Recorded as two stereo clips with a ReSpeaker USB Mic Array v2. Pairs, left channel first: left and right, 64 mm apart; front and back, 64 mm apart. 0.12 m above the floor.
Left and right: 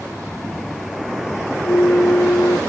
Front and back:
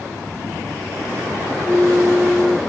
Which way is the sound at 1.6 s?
95° left.